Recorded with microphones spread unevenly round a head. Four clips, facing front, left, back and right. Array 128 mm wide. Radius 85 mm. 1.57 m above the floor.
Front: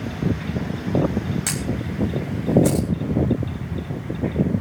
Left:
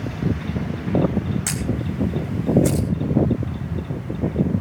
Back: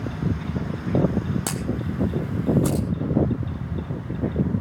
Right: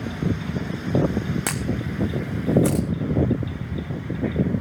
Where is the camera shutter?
145° right, 0.6 m.